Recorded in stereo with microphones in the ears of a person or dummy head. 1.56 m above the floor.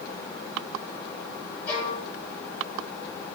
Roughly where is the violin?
Centre.